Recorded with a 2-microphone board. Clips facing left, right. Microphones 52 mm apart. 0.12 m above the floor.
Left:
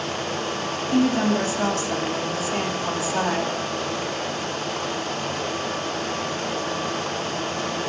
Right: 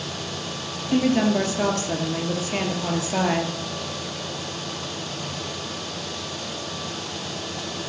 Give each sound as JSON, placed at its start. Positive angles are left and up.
{"t": 0.9, "sound": "a woman speaking", "side_deg": -40, "distance_m": 2.5}